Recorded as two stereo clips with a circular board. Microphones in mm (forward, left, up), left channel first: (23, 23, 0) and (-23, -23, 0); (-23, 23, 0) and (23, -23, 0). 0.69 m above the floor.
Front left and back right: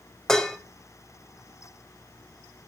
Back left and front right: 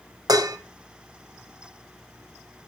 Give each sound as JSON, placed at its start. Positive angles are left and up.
{"t": 0.3, "sound": "dishes clattering", "azimuth_deg": -40, "distance_m": 2.0}